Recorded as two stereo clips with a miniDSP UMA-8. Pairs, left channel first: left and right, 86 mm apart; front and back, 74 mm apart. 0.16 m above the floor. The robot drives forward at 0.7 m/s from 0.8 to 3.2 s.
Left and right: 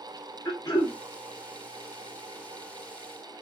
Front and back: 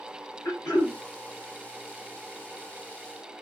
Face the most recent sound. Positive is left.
turn(degrees=55)